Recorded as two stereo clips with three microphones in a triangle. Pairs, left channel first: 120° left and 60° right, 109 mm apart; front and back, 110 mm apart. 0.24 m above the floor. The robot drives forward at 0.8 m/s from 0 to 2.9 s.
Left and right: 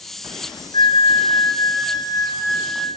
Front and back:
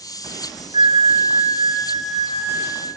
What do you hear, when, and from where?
0.7 s a flute: 155° left, 0.8 m; by 2.9 s 170° left, 2.5 m